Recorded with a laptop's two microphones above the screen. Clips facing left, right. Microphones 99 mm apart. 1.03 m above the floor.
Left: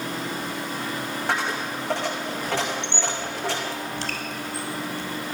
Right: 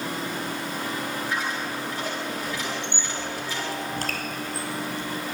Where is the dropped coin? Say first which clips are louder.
Left 2 dB; 75° left (ahead or behind), 5.5 m.